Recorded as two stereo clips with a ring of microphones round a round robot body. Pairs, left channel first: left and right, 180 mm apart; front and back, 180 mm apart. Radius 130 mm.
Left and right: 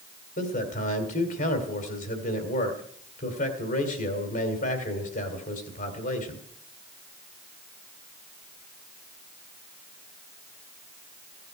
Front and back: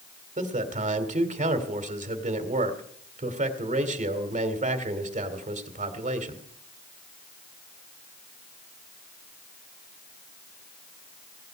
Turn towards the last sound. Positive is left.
turn(degrees=135)